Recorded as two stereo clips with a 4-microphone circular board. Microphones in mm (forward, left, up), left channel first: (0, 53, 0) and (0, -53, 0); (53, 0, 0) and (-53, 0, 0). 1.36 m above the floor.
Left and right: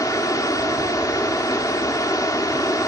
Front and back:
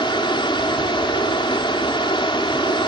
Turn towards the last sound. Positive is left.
turn(degrees=35)